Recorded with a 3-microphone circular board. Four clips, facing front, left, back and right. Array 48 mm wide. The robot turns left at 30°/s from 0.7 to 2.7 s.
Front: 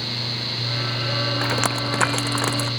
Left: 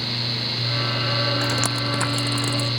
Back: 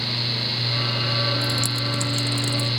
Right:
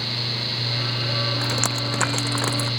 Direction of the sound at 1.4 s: 5° left.